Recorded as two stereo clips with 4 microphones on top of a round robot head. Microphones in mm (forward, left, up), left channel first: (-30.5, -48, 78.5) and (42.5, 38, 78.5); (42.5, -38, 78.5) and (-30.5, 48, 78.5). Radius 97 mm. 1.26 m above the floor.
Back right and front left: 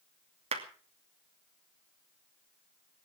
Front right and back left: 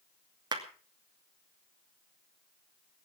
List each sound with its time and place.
0.5 s a clap: 80° left, 2.5 m